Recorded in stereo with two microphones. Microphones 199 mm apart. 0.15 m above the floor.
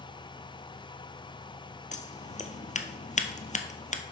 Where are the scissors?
40° left (ahead or behind), 0.7 m.